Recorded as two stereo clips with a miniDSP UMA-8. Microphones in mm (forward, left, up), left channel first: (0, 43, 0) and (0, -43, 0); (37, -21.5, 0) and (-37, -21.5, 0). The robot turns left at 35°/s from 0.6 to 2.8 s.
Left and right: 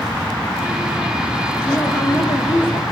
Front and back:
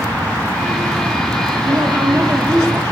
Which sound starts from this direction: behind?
A woman speaking, at 1.6 s.